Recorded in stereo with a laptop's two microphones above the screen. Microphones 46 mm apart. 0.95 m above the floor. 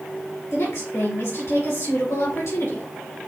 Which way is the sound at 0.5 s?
75° left (ahead or behind).